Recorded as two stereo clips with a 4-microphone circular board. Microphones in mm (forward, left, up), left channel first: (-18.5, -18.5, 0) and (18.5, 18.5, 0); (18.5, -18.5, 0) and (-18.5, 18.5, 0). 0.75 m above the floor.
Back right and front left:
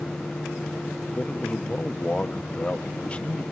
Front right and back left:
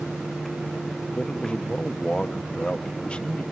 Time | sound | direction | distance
1.1 | a man speaking | 95° right | 0.8 m